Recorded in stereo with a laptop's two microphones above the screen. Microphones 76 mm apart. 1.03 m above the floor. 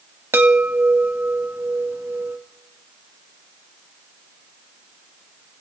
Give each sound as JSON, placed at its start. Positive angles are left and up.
{"t": 0.3, "sound": "a chime", "side_deg": -30, "distance_m": 1.4}